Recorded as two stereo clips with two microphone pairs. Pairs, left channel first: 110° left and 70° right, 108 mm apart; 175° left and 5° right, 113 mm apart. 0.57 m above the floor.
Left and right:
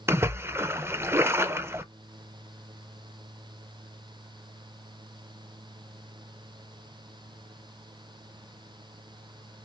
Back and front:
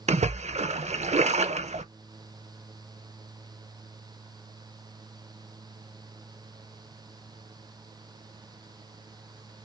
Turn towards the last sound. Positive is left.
turn(degrees=0)